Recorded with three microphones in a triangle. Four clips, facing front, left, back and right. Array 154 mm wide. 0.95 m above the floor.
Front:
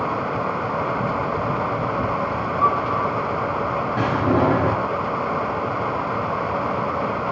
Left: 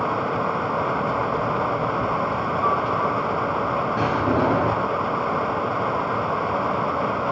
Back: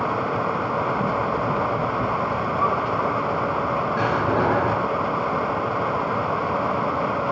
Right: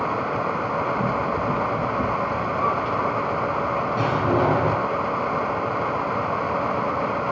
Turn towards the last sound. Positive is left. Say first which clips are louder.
# right 1 dB, front 4 dB
turn(degrees=10)